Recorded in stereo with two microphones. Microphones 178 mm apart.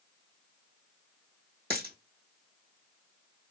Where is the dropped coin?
70° right (ahead or behind), 1.5 m.